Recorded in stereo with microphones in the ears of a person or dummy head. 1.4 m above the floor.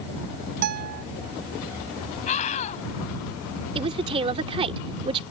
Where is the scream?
35° left (ahead or behind).